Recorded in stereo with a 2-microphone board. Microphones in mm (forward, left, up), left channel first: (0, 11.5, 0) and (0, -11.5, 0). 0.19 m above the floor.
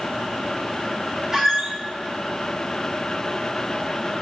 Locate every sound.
1.3 s a squeak: 10° right (ahead or behind), 1.0 m